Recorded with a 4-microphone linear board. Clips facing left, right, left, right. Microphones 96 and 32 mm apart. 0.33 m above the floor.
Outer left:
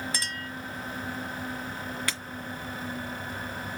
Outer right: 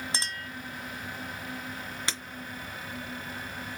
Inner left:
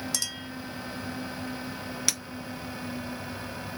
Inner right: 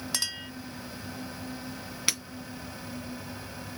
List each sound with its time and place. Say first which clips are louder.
0.1 s a clink: outer left 1 dB, inner right 1 dB; 25° right (ahead or behind), 0.7 m
2.1 s breaking glass: outer left 1 dB, inner right 1 dB; 20° right (ahead or behind), 1.8 m